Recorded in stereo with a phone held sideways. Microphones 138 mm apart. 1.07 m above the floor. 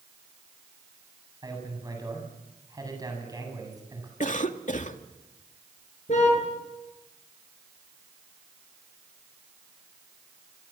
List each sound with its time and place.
1.4 s a man speaking: 25° right (ahead or behind), 8 m
4.2 s a cough: 65° left (ahead or behind), 1.9 m
6.1 s a car horn: 60° left (ahead or behind), 9.5 m